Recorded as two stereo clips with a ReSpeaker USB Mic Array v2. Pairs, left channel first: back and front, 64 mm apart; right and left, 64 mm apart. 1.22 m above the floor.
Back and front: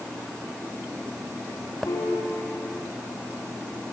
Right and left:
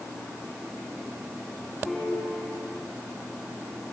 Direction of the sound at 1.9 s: Straight behind.